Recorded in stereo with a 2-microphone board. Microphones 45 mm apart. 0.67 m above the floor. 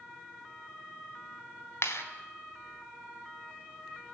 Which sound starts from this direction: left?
A clap, at 1.8 s.